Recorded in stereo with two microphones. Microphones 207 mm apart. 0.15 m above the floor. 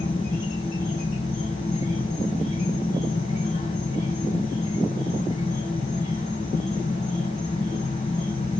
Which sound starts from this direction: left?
An insect, at 0.0 s.